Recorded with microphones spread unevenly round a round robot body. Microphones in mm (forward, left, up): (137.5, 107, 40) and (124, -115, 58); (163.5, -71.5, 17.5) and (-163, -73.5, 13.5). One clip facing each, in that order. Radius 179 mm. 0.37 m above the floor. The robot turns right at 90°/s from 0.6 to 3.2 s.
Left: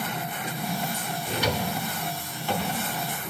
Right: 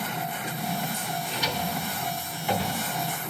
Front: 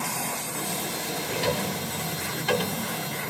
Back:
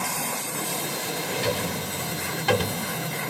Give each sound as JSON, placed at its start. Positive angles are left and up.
{"t": 1.3, "sound": "a drawer", "azimuth_deg": 75, "distance_m": 0.7}